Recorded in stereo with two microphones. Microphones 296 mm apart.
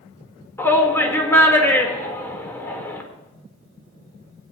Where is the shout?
10° left (ahead or behind), 1.5 m.